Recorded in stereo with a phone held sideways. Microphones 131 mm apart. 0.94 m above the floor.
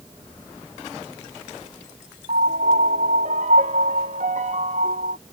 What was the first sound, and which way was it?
A piano, 60° right (ahead or behind).